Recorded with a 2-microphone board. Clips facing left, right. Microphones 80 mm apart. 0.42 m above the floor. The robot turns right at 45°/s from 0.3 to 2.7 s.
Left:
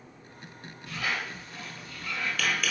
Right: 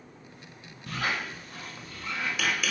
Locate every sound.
0.9 s a squeak: 65° right (ahead or behind), 0.5 m; by 2.7 s centre (ahead or behind), 0.5 m